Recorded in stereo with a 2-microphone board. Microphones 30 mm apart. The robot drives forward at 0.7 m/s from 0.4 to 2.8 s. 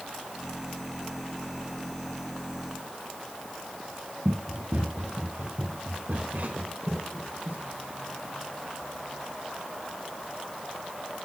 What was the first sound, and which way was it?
Running footsteps, 50° right (ahead or behind).